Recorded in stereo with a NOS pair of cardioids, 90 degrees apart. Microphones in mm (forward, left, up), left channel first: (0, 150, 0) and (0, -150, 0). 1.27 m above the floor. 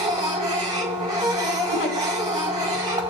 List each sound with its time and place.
0.0 s a machine running: 15° right, 5 m
1.7 s a giggle: 50° left, 5.5 m